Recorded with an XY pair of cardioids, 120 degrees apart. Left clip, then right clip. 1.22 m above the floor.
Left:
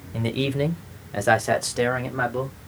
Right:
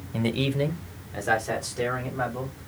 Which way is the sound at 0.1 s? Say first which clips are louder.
Left 1 dB; 5° right.